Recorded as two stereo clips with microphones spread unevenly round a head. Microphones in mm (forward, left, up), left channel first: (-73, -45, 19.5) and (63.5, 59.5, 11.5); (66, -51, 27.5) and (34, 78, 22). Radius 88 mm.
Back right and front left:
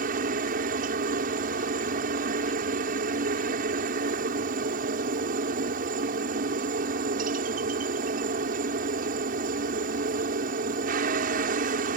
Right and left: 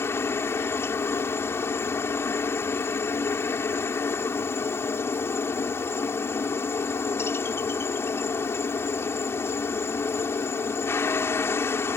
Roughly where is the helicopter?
Ahead.